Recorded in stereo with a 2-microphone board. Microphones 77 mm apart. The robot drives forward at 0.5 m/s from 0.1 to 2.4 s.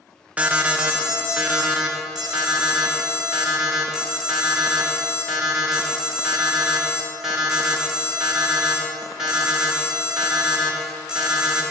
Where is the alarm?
20° right (ahead or behind), 0.9 m; by 11.6 s 10° right (ahead or behind), 1.8 m.